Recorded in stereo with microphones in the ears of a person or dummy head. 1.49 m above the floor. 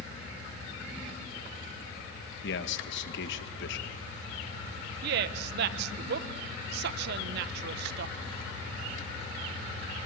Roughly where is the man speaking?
Left.